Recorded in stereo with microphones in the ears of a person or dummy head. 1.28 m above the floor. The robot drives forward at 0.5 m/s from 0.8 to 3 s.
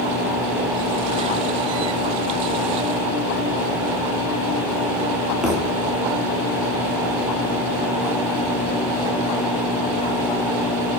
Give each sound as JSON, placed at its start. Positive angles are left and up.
{"t": 5.4, "sound": "a thud", "side_deg": -5, "distance_m": 1.2}